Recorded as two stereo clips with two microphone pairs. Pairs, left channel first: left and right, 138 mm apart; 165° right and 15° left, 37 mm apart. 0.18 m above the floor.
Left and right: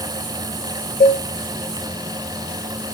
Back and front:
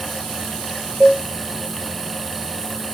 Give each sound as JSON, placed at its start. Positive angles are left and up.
{"t": 1.0, "sound": "a cowbell", "azimuth_deg": 85, "distance_m": 2.0}